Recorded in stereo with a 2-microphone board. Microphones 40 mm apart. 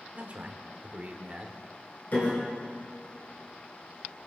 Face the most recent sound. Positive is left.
turn(degrees=45)  # may be behind; listen again after turning